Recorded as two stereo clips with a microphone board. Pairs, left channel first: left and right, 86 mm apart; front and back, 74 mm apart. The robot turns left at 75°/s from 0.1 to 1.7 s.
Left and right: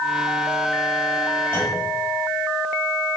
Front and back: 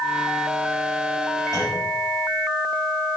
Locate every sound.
1.5 s a clunk: 155° left, 5.5 m; by 1.9 s 140° left, 5.5 m